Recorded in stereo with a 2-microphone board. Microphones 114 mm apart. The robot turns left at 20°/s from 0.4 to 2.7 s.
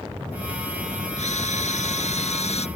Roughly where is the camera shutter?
Left.